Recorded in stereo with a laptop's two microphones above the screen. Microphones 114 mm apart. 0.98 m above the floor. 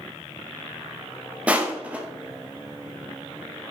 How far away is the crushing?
About 0.6 m.